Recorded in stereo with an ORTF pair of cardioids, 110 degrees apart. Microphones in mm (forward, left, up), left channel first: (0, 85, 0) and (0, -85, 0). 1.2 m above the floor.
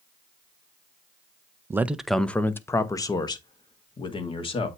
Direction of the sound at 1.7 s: 15° right.